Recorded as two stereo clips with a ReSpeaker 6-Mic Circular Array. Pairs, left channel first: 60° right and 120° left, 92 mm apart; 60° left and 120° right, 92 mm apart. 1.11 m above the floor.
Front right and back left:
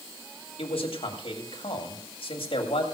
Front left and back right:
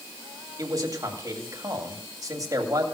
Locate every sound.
0.6 s a man speaking: 70° right, 2 m